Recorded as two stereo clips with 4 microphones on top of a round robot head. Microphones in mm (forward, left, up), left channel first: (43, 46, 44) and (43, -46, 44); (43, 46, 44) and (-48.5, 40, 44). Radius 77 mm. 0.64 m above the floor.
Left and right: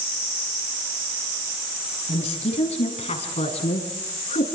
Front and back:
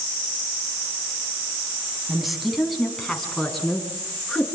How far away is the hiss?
No hiss in this recording.